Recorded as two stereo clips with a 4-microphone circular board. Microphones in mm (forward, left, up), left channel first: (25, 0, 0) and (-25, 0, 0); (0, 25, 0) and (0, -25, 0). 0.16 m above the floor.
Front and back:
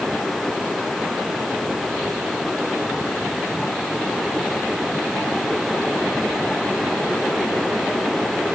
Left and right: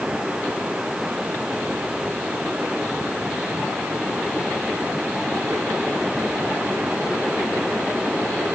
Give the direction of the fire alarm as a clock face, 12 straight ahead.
I don't hear a fire alarm.